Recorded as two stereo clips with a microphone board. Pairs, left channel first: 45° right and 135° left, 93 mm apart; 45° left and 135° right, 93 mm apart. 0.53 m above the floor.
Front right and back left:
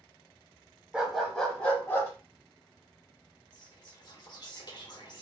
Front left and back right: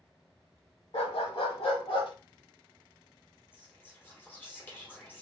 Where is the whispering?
20° right, 1.4 m.